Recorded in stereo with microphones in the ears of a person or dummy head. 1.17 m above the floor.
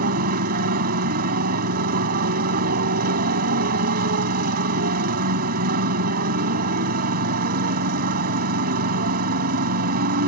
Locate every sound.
0.0 s a motorcycle: 50° right (ahead or behind)